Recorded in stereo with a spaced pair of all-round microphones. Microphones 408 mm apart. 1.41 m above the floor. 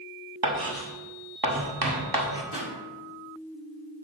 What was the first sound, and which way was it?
Writing, 60° right (ahead or behind).